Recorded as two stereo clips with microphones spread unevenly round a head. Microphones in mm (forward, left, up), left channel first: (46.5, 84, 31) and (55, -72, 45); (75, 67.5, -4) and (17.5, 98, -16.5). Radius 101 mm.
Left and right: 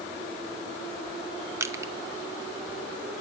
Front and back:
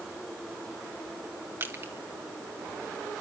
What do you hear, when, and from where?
1.6 s crushing: 160° right, 0.8 m